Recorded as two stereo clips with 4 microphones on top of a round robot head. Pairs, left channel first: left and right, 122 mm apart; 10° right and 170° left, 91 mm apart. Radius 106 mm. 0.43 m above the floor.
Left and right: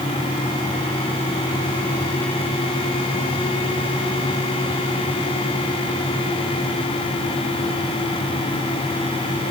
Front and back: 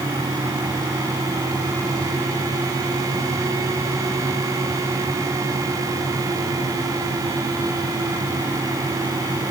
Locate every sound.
Only background noise.